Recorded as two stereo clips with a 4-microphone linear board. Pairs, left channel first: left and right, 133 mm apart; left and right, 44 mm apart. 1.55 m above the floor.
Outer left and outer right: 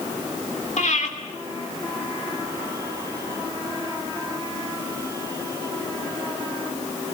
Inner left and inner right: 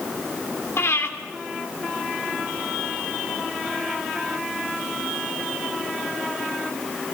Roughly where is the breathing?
Left.